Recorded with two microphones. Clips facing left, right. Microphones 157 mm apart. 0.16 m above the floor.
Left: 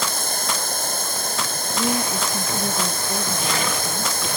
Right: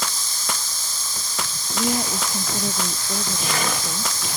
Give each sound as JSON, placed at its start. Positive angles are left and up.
{"t": 0.0, "sound": "running water", "side_deg": 60}
{"t": 1.7, "sound": "a woman speaking", "side_deg": -5}